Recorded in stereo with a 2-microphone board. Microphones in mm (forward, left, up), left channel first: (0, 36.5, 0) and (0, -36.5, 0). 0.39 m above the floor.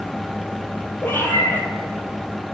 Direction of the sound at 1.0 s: 30° left (ahead or behind).